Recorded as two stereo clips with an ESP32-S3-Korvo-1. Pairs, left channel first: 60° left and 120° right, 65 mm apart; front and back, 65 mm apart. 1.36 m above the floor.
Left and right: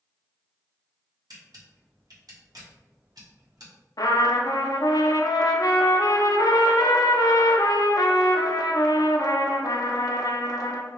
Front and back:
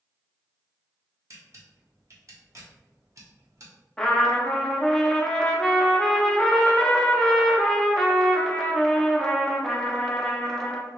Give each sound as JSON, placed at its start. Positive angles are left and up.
{"t": 1.3, "sound": "a camera shutter", "azimuth_deg": -140, "distance_m": 1.0}
{"t": 4.0, "sound": "a trumpet", "azimuth_deg": 80, "distance_m": 0.5}